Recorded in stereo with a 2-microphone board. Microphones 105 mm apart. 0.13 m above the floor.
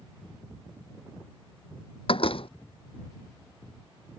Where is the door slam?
65° left (ahead or behind).